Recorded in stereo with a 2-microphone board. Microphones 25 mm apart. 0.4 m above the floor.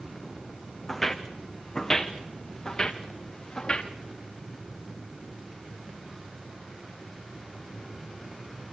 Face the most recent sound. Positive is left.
turn(degrees=40)  # may be behind; listen again after turning